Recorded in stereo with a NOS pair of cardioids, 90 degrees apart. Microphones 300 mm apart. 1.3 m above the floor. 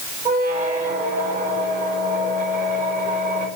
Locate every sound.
0.2 s a squeak: 25° right, 4 m